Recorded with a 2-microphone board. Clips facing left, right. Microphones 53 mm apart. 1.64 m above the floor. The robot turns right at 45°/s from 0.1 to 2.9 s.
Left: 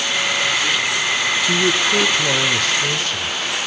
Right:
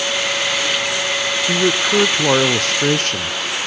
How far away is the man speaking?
About 0.7 m.